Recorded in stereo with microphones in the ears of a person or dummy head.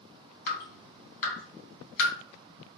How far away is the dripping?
About 2 m.